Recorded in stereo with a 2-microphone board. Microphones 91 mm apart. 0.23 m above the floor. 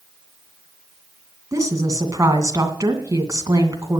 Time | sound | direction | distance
1.5 | a woman speaking | 35° right (ahead or behind) | 2.5 m